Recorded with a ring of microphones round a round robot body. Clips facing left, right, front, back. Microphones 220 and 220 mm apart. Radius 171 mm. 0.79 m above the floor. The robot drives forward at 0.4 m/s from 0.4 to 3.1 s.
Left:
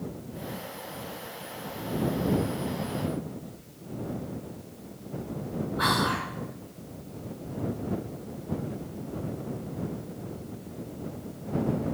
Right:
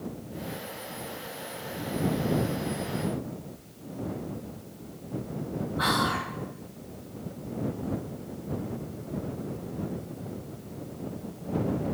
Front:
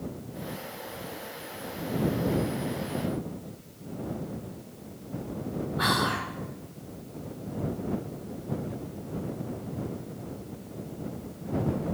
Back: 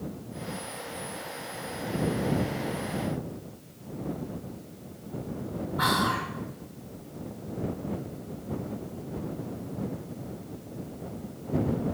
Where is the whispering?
150° left, 3 m.